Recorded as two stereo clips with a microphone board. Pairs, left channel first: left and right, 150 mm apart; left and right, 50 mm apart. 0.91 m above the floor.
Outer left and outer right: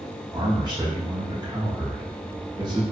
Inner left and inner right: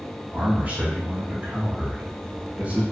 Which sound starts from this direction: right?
A man speaking, at 0.3 s.